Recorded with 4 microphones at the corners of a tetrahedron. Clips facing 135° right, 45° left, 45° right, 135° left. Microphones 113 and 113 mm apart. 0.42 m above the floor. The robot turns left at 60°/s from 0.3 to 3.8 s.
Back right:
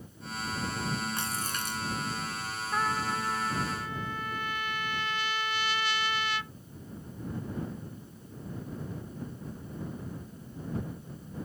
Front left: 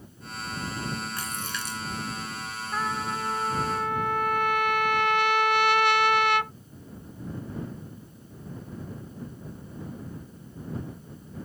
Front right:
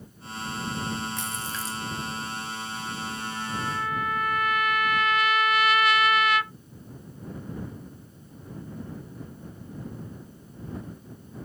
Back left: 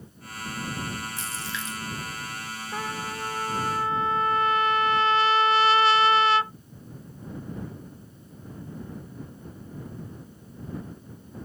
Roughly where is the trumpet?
Behind left.